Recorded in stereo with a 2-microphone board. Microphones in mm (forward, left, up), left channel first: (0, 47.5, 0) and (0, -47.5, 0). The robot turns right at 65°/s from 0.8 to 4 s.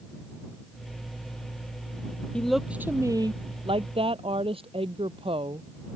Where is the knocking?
I don't hear knocking.